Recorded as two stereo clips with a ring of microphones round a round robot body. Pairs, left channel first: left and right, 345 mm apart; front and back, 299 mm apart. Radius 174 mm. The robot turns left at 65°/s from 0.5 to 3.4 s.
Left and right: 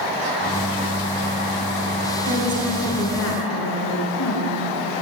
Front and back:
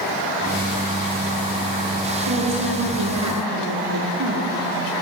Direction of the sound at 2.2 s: 150° right.